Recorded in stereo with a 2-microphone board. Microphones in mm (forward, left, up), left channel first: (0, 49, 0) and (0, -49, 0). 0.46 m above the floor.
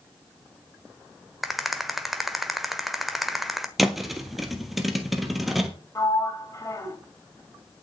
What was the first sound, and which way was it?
A rattle, centre (ahead or behind).